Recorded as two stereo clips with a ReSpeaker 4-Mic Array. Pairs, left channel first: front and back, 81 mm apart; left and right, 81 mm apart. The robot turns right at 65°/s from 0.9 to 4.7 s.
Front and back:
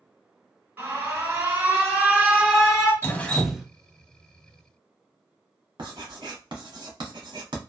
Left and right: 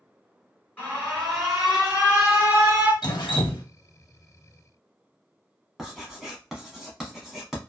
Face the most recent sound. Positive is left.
turn(degrees=-175)